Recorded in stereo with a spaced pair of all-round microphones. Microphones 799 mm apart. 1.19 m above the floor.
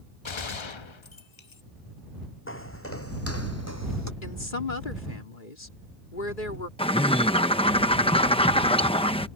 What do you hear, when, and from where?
0.2 s a gunshot: 40° left (ahead or behind)
2.5 s footsteps: 15° left (ahead or behind); by 4.1 s 20° left (ahead or behind)
4.2 s a woman speaking: 85° left
6.8 s a bird: 5° left (ahead or behind)